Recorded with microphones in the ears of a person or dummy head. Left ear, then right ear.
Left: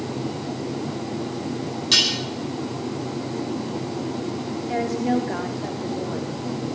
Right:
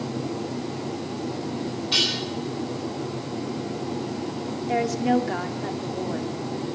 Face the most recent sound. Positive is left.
turn(degrees=-15)  # may be behind; listen again after turning